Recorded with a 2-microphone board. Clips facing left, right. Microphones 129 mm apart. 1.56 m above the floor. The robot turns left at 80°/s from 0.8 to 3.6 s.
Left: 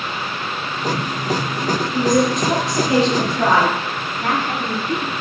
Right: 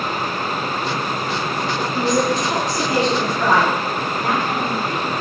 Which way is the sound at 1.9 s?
165° left.